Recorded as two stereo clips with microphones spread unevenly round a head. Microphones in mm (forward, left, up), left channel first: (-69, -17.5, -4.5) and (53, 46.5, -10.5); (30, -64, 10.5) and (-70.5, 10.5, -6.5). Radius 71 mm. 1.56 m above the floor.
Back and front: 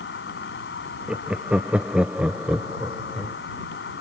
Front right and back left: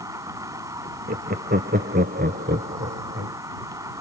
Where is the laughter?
110° left.